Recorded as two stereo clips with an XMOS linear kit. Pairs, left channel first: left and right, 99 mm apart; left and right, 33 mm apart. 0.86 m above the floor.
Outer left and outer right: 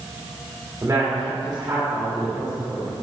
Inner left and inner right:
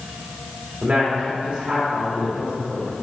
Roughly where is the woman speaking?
Right.